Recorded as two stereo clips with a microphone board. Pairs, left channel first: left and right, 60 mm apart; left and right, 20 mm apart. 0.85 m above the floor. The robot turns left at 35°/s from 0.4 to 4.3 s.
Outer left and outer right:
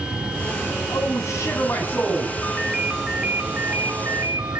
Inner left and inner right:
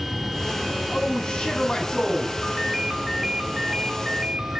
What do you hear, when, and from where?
0.9 s a man speaking: 65° left, 8 m; by 2.3 s 15° left, 8 m
2.4 s a ringtone: 10° left, 3 m; by 4.6 s 55° right, 3 m